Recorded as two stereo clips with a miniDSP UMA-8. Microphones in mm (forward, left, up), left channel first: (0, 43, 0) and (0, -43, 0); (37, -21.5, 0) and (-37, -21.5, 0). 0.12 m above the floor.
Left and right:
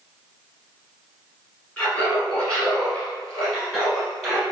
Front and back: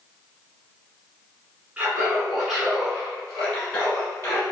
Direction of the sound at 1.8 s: 135° left.